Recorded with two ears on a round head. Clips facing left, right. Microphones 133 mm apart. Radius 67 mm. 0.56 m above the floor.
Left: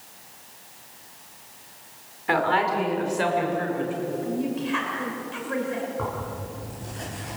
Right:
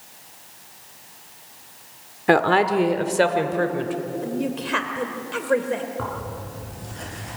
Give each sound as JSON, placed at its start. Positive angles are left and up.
{"t": 2.3, "sound": "a woman speaking", "side_deg": -55, "distance_m": 1.7}
{"t": 4.2, "sound": "a woman speaking", "side_deg": -65, "distance_m": 2.5}
{"t": 6.0, "sound": "tearing paper", "side_deg": 0, "distance_m": 10.0}